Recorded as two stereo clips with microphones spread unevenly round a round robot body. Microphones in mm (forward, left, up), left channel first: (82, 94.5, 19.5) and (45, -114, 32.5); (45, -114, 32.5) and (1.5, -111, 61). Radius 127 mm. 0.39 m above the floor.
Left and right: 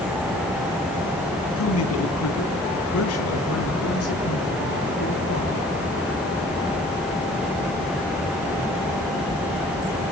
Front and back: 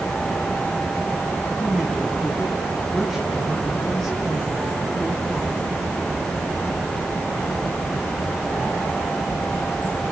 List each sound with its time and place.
1.6 s a man speaking: 80° left, 3 m; by 5.7 s 75° left, 8.5 m